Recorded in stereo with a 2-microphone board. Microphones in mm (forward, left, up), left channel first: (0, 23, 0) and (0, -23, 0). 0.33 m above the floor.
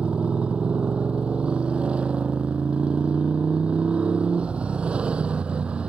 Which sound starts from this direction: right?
A motorcycle, at 0.0 s.